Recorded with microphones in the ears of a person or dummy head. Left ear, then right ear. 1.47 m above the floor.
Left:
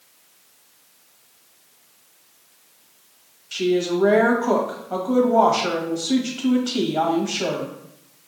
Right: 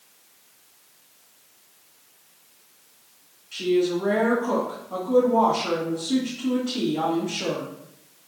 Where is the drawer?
I don't hear a drawer.